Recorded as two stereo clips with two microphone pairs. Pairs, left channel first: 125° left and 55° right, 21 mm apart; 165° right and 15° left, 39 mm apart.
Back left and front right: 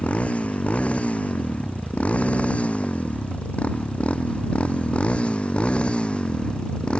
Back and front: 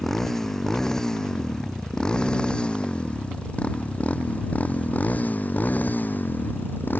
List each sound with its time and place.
0.0 s a motorcycle: 115° left; by 7.0 s 165° left